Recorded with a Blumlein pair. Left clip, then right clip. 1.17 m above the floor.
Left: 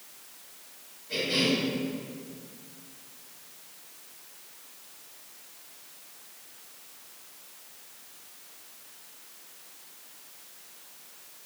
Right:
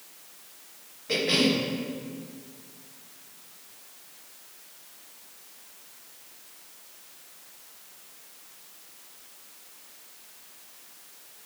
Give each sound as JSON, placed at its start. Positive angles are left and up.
{"t": 1.1, "sound": "a cough", "azimuth_deg": -50, "distance_m": 1.8}